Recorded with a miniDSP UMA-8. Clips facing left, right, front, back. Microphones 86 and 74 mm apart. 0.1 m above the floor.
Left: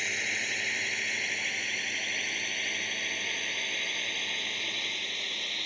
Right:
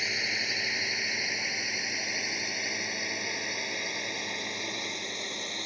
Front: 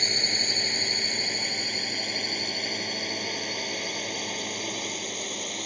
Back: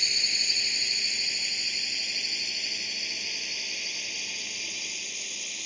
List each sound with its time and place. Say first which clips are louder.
0.0 s a drone: even, front 5 dB; 10° right; by 5.7 s 25° right